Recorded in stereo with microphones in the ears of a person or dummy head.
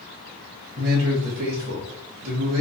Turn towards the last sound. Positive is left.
turn(degrees=-45)  # may be behind; listen again after turning